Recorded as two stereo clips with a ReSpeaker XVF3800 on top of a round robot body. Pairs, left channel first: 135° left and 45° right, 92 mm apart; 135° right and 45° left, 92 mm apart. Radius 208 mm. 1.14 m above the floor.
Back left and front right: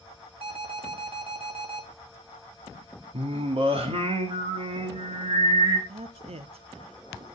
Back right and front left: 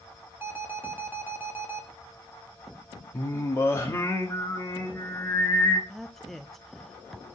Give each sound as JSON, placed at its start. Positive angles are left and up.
{"t": 0.4, "sound": "an alarm", "azimuth_deg": -20, "distance_m": 2.5}
{"t": 3.1, "sound": "singing", "azimuth_deg": -70, "distance_m": 1.6}
{"t": 5.9, "sound": "a woman speaking", "azimuth_deg": -45, "distance_m": 0.7}